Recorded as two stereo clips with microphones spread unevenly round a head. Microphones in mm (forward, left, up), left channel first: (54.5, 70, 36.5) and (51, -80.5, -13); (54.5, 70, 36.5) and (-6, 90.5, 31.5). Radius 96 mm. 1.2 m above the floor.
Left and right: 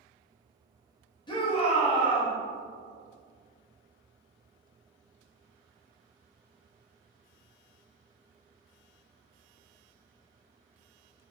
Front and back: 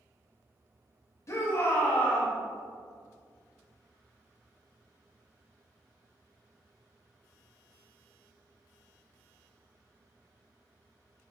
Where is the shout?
25° left, 1.8 m; by 2.3 s 50° left, 2 m.